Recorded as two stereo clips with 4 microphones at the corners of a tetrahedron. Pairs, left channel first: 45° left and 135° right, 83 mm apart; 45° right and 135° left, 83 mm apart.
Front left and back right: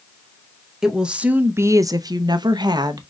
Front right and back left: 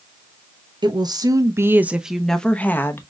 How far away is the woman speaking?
About 0.9 m.